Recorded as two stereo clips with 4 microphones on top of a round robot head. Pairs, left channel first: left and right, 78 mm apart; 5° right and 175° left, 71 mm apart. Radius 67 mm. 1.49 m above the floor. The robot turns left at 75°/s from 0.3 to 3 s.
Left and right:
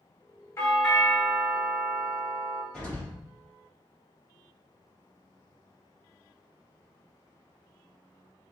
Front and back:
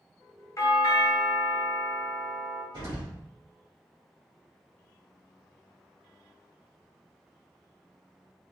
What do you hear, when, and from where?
0.6 s a doorbell: 35° left, 1.0 m; by 2.6 s 125° right, 1.0 m
2.7 s an explosion: 165° left, 1.6 m; by 3.2 s 145° left, 1.6 m